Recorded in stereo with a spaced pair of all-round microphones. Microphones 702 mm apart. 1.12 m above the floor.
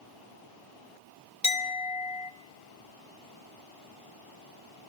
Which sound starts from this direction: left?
A clink, at 1.4 s.